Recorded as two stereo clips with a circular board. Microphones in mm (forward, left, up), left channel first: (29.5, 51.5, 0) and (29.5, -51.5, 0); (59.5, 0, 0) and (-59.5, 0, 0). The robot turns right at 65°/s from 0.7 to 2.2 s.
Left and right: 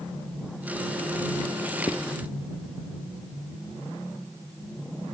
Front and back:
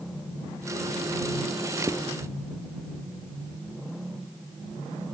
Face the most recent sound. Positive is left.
turn(degrees=145)